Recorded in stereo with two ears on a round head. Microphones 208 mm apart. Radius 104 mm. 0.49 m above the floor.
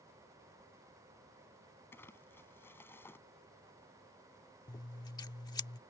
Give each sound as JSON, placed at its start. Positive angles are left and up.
{"t": 1.9, "sound": "crumpling", "side_deg": 10}
{"t": 4.7, "sound": "scissors", "side_deg": 15}